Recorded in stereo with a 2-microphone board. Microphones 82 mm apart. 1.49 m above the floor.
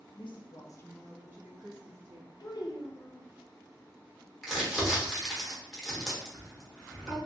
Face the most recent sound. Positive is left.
turn(degrees=-5)  # may be behind; listen again after turning